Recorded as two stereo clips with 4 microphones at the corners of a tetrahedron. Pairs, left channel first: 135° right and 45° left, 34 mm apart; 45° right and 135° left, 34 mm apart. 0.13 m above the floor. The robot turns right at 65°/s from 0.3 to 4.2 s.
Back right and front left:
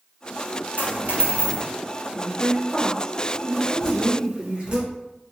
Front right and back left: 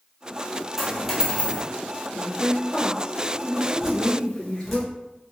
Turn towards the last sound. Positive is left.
turn(degrees=35)